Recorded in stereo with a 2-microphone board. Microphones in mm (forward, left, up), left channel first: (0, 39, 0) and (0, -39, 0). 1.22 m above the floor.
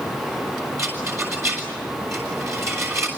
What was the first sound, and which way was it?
A rattle, 40° right (ahead or behind).